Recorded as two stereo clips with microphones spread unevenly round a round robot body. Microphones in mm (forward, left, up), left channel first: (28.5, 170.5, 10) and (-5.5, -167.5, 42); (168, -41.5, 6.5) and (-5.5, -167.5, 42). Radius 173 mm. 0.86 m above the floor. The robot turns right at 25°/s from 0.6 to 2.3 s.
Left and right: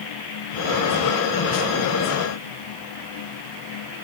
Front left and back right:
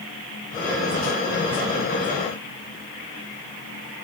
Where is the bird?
No bird in this recording.